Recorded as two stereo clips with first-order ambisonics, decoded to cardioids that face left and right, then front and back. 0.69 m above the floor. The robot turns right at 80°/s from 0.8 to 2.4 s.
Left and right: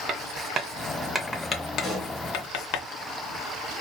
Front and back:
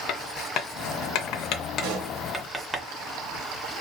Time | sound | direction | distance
0.1 | writing | 35° right | 0.5 m
1.8 | a pop | 175° left | 1.4 m